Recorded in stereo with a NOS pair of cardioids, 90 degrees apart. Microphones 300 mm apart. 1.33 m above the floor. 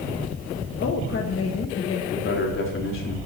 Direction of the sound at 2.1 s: 45° left.